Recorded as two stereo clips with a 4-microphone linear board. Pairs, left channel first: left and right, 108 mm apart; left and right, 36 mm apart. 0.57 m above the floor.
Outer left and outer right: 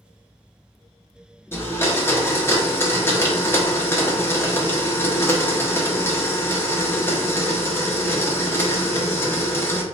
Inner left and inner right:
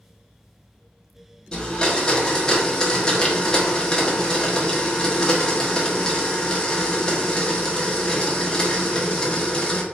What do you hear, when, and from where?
1.5 s a blender: 20° left (ahead or behind), 1.0 m